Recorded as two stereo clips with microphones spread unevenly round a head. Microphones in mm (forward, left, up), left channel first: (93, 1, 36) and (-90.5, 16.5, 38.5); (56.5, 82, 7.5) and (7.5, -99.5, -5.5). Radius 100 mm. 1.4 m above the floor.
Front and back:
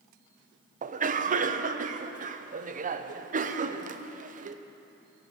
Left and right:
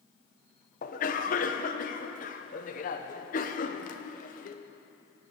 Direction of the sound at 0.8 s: 130° left.